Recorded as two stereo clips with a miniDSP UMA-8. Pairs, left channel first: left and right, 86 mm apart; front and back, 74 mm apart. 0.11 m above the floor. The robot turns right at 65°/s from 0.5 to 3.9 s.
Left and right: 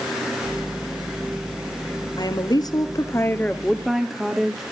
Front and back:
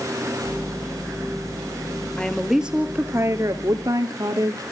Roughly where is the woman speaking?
Left.